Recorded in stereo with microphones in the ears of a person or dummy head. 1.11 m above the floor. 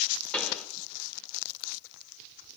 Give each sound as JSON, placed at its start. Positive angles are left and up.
{"t": 0.3, "sound": "a pop", "side_deg": 10, "distance_m": 5.0}